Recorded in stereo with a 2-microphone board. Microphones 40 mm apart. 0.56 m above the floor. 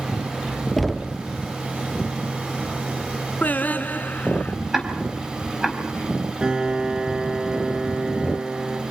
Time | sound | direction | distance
0.8 | knocking | 5° left (ahead or behind) | 0.7 m
3.4 | singing | 45° left (ahead or behind) | 1.2 m
4.7 | ticking | 10° right (ahead or behind) | 4.5 m
6.4 | a piano | 25° right (ahead or behind) | 3 m